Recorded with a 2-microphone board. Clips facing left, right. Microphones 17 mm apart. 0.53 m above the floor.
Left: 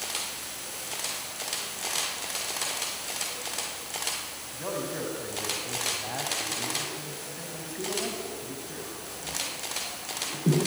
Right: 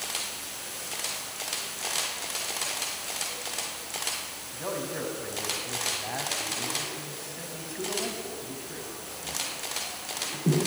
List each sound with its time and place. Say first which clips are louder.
4.5 s a man speaking: even; 5° right (ahead or behind), 4.5 m